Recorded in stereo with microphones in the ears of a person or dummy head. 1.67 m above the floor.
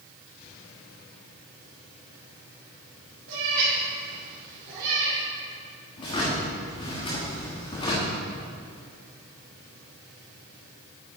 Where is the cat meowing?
70° right (ahead or behind), 3 m; by 5.2 s 50° right (ahead or behind), 2.5 m.